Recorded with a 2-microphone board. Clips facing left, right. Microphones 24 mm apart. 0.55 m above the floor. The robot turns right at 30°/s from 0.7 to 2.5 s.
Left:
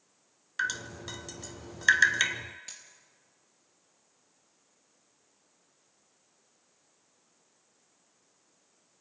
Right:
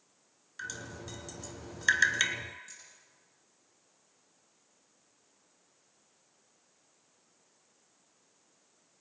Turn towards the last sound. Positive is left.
turn(degrees=65)  # may be behind; listen again after turning